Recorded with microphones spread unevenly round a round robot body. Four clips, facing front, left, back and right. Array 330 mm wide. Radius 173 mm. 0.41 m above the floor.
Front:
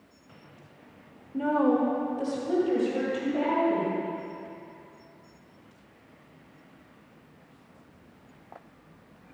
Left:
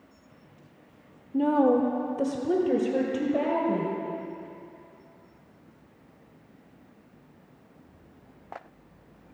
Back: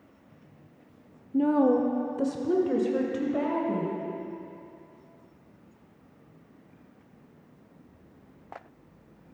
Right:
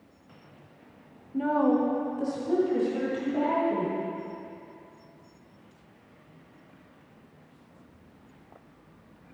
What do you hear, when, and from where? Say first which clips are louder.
1.3 s a woman speaking: left 2 dB, back 2 dB; 145° left, 1.0 m; by 4.0 s 110° left, 2 m